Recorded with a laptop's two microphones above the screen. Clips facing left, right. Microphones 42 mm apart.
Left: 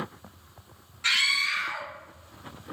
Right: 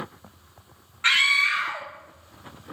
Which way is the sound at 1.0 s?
35° right (ahead or behind).